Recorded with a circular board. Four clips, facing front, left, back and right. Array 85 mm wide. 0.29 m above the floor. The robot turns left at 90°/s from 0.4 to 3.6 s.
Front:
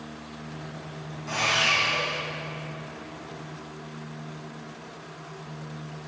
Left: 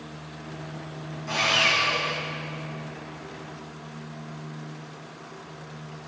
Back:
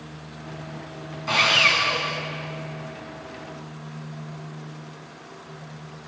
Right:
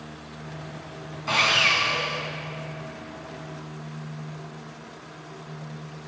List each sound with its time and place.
1.3 s sawing: 135° right, 2.5 m; by 2.2 s 140° left, 2.5 m